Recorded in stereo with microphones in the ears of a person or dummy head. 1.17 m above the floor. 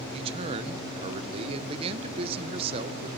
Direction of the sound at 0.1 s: 35° right (ahead or behind).